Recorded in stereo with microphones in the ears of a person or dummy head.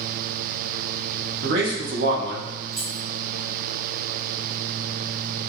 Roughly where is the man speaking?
Right.